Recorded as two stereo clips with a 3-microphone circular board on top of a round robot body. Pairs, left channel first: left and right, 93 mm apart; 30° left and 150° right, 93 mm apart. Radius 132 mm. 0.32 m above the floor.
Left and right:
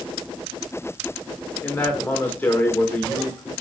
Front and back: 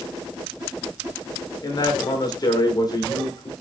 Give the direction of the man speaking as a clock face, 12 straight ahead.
11 o'clock.